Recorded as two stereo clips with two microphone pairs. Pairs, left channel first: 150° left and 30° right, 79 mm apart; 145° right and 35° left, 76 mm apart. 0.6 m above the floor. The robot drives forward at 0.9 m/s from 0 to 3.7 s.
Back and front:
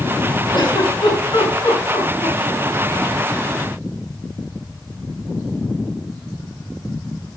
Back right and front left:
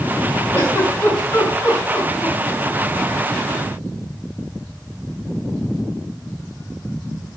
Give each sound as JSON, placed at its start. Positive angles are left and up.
{"t": 0.5, "sound": "a giggle", "azimuth_deg": 155, "distance_m": 7.0}